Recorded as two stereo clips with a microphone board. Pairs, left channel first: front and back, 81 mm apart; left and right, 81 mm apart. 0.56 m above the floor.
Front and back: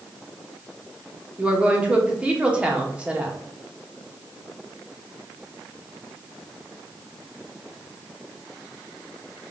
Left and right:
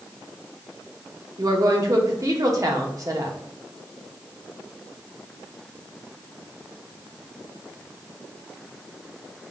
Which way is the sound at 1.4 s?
110° right.